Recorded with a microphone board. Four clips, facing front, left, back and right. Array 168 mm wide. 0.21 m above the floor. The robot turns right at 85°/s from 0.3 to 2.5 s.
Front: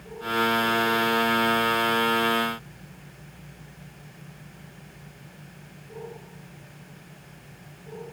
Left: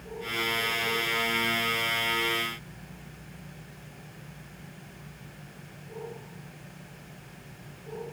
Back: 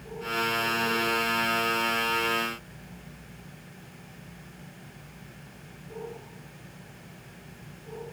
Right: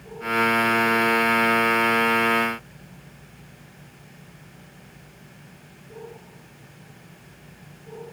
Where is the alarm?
No alarm in this recording.